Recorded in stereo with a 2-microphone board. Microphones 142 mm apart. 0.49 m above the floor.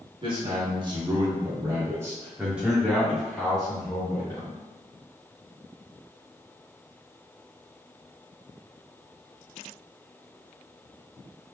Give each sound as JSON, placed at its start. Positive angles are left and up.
{"t": 0.2, "sound": "a man speaking", "side_deg": -35, "distance_m": 1.4}